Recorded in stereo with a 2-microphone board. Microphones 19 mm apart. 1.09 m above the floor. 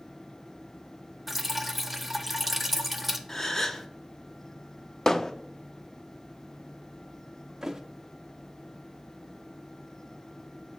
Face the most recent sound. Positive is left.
turn(degrees=-30)  # may be behind; listen again after turning